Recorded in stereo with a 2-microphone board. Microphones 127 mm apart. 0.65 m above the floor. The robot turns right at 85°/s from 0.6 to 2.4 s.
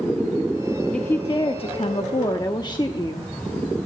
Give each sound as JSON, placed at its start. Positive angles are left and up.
{"t": 0.9, "sound": "a woman speaking", "azimuth_deg": 10, "distance_m": 0.8}